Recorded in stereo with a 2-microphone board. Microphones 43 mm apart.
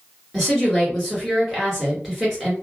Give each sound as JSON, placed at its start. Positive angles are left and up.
{"t": 0.3, "sound": "a woman speaking", "side_deg": 0, "distance_m": 1.6}